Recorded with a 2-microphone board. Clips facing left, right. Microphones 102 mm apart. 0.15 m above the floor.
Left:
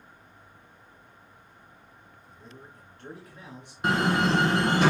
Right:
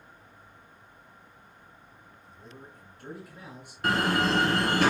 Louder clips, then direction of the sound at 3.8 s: Left 1 dB; 20° left (ahead or behind).